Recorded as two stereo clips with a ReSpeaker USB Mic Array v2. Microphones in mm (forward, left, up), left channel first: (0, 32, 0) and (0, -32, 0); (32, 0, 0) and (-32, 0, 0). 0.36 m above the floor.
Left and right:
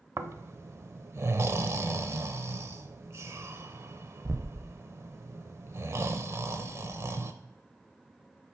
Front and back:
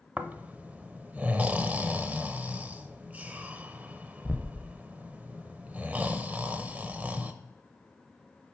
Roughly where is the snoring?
Behind right.